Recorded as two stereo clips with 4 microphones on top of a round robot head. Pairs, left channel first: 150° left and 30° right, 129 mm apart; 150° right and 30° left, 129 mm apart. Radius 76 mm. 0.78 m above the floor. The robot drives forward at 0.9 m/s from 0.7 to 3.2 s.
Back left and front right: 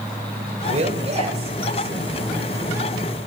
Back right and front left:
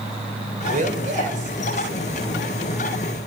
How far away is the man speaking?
About 4.5 m.